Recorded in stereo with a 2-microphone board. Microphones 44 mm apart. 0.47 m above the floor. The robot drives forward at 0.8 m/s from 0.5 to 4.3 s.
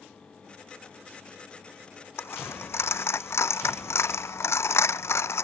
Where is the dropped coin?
70° left (ahead or behind); by 5.4 s 85° left.